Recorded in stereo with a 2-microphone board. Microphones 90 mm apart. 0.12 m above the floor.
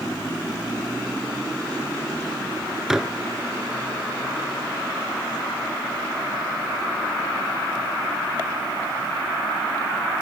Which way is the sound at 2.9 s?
5° right (ahead or behind).